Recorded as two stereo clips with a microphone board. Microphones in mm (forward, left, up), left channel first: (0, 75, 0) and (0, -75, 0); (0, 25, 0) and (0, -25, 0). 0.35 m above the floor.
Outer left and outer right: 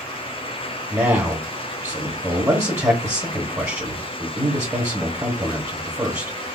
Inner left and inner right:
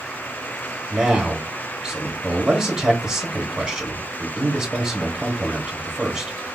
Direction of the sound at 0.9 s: 20° right (ahead or behind).